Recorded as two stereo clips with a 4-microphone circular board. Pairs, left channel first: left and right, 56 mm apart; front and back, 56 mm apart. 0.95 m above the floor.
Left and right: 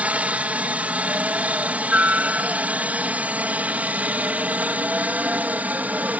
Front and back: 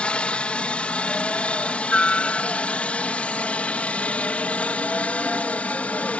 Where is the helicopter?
50° right.